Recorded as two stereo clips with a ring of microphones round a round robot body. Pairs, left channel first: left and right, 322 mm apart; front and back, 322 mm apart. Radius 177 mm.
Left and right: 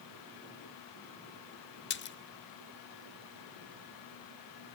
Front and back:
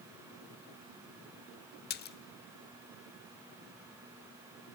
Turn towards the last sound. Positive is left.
turn(degrees=50)